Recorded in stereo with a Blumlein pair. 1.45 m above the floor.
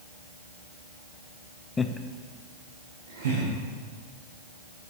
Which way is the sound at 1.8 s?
15° left.